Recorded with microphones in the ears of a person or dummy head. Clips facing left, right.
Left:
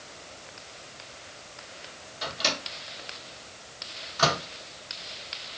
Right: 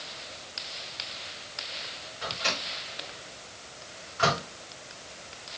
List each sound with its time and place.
2.2 s a microwave: 60° left (ahead or behind), 0.9 m